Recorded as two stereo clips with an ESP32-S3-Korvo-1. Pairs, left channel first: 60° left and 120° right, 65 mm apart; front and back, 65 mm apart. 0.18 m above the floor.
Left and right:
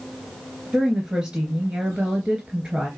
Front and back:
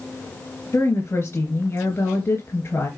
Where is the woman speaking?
40° right, 3 m.